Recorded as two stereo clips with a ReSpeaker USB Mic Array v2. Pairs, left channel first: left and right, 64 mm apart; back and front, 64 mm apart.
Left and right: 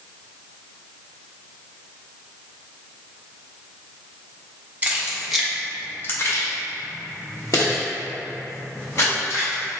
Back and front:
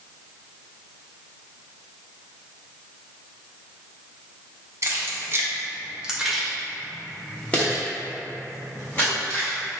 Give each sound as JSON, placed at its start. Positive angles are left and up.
{"t": 4.8, "sound": "keys jangling", "azimuth_deg": -30, "distance_m": 0.9}